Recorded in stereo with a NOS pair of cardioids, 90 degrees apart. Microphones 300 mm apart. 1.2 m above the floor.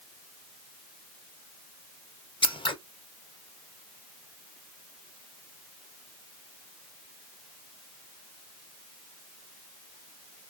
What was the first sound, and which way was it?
Scissors, 15° left.